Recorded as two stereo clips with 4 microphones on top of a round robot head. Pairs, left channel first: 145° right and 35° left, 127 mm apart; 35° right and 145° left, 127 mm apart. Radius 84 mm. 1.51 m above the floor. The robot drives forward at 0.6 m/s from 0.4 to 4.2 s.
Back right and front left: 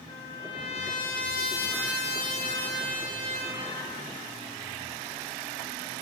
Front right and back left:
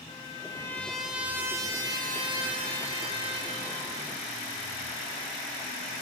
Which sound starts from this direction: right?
A trumpet, at 0.1 s.